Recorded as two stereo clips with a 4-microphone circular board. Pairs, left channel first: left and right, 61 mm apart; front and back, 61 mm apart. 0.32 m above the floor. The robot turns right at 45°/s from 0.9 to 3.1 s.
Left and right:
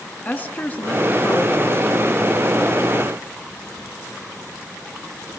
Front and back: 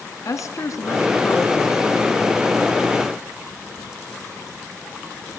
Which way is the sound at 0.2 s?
30° left.